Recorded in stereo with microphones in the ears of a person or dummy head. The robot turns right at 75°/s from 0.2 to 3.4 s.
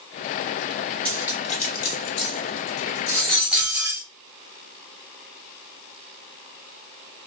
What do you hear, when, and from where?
1.1 s cutlery clinking: 5° left (ahead or behind), 1.3 m; by 4.0 s 5° right (ahead or behind), 1.3 m